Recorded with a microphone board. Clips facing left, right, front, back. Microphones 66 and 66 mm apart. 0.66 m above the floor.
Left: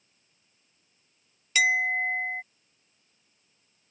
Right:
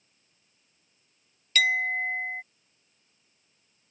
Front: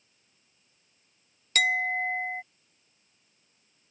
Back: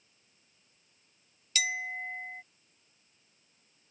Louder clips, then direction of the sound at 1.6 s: Left 1 dB, front 9 dB; 15° left.